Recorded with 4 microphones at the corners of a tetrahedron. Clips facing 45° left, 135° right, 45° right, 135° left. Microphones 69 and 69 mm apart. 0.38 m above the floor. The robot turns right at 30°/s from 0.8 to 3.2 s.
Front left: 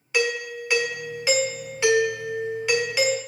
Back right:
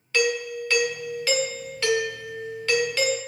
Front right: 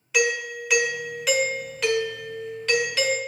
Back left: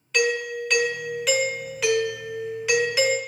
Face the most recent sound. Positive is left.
turn(degrees=95)